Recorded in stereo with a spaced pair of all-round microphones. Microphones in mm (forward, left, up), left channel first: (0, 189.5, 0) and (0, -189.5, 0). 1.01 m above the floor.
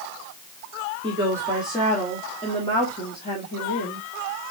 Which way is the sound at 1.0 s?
15° right (ahead or behind).